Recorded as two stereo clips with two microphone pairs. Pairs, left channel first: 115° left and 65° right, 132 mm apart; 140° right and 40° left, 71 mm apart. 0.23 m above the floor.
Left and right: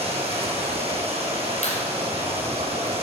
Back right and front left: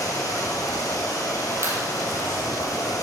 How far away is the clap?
About 5 m.